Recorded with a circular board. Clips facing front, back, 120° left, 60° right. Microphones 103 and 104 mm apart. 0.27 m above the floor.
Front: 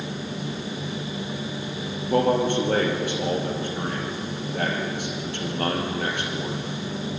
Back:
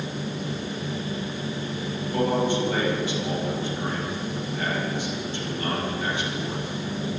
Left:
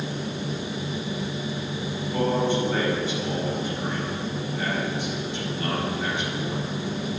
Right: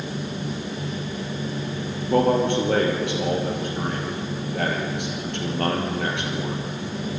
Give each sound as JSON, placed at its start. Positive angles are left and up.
{"t": 2.1, "sound": "a man speaking", "azimuth_deg": -35, "distance_m": 6.5}